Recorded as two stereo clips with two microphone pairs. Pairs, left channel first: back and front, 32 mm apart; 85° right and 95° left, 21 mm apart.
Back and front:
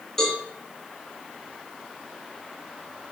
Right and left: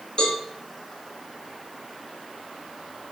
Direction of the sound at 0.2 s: 110° right.